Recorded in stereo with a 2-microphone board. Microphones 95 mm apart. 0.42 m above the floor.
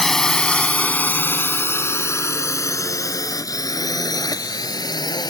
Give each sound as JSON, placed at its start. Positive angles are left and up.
{"t": 0.0, "sound": "a drone", "side_deg": 5}